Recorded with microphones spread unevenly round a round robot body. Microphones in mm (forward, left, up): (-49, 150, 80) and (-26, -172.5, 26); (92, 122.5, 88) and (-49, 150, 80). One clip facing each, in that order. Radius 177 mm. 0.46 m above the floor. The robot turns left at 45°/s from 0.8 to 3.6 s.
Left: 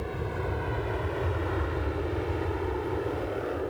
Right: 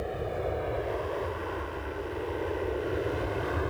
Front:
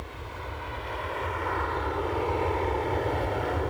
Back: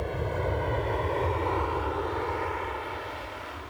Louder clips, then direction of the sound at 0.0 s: Right 1 dB, back 10 dB; 165° left.